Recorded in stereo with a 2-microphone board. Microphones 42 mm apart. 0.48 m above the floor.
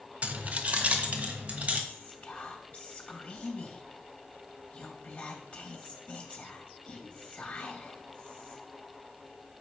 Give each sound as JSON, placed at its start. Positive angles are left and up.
{"t": 0.2, "sound": "keys jangling", "side_deg": -35, "distance_m": 0.7}
{"t": 1.9, "sound": "whispering", "side_deg": 35, "distance_m": 2.5}